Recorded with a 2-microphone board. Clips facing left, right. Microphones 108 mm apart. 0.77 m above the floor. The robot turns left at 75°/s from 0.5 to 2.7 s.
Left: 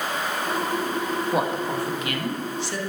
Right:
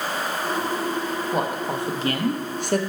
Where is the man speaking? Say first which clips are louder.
Even; 10° left, 0.7 m; by 2.8 s 95° right, 0.7 m.